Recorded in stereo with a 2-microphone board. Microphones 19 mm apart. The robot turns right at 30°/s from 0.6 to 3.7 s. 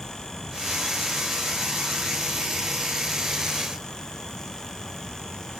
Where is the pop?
I don't hear a pop.